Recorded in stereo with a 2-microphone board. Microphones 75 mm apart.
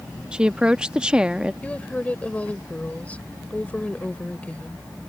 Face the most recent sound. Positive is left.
turn(degrees=20)  # may be behind; listen again after turning